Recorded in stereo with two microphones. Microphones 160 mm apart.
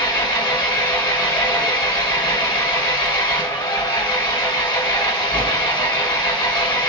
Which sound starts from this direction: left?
An engine running, at 0.0 s.